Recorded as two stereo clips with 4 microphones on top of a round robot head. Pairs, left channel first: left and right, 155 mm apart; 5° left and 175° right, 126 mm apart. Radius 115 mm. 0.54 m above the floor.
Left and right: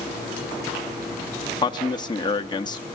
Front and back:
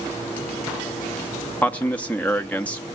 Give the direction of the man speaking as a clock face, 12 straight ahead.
10 o'clock.